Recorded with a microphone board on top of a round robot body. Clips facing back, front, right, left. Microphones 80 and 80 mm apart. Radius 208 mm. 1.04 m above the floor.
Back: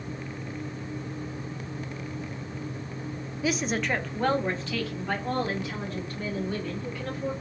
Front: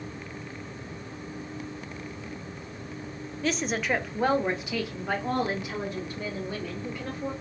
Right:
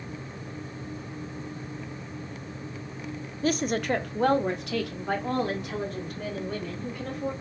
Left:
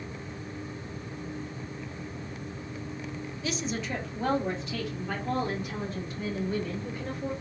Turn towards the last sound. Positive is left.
turn(degrees=-70)